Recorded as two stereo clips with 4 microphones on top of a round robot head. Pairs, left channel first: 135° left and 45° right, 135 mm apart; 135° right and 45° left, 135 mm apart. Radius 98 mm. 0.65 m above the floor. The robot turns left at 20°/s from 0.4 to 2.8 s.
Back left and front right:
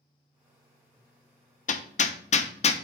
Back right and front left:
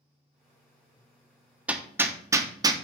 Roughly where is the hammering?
Behind left.